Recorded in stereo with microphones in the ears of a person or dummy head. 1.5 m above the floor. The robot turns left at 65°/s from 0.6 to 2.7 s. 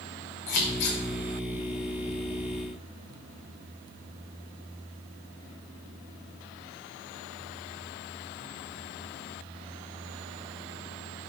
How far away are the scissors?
About 1.9 m.